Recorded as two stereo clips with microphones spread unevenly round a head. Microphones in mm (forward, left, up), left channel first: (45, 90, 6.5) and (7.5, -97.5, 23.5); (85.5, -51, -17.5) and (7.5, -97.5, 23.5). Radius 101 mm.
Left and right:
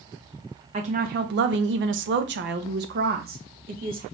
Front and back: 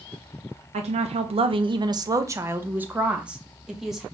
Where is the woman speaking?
155° right, 0.7 m; by 4.0 s 55° right, 1.6 m.